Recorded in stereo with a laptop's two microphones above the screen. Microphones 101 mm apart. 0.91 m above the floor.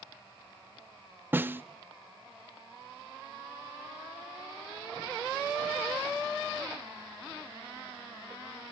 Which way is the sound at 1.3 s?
20° right (ahead or behind).